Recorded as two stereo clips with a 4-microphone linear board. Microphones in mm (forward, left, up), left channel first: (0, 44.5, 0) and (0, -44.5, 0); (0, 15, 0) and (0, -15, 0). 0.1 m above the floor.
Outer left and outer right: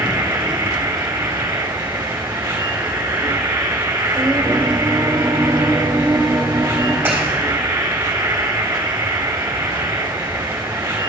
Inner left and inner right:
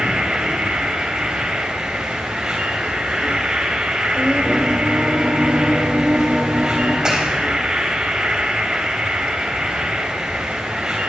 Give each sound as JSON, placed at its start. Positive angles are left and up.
{"t": 0.0, "sound": "an insect", "side_deg": -30, "distance_m": 3.0}
{"t": 4.2, "sound": "singing", "side_deg": -45, "distance_m": 1.6}
{"t": 7.0, "sound": "a clap", "side_deg": -20, "distance_m": 4.0}